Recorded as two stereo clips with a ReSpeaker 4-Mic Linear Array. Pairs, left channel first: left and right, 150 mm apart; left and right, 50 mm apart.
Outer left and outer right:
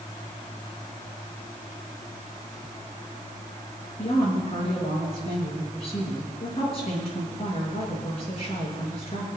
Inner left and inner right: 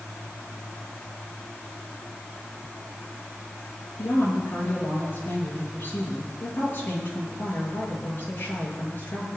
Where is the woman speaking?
40° left (ahead or behind), 6.5 m.